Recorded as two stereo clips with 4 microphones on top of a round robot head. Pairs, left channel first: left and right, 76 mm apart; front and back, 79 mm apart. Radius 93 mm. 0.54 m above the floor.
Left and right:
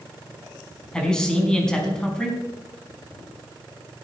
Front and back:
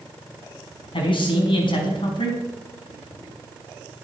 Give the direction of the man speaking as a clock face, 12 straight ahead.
12 o'clock.